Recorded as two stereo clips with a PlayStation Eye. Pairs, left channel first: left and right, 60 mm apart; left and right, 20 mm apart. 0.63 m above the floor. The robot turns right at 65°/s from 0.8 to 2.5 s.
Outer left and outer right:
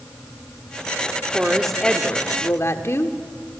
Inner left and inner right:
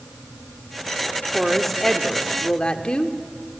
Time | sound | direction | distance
1.3 | a woman speaking | 15° right | 1.3 m